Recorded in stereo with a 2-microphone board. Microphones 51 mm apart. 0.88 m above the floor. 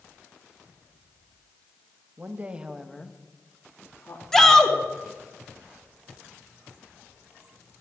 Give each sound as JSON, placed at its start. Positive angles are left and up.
{"t": 2.2, "sound": "a woman speaking", "side_deg": -40, "distance_m": 1.6}
{"t": 4.3, "sound": "a shout", "side_deg": 10, "distance_m": 2.5}